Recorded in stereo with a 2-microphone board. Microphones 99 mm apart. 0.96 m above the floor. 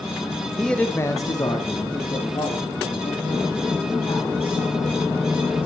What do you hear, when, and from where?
0.6 s a man speaking: 5° left (ahead or behind), 0.7 m; by 5.7 s 80° left, 4 m